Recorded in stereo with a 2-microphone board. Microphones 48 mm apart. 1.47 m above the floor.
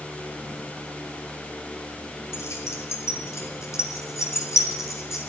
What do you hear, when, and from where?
2.3 s keys jangling: 75° left (ahead or behind), 4 m; by 5.2 s 80° left, 6.5 m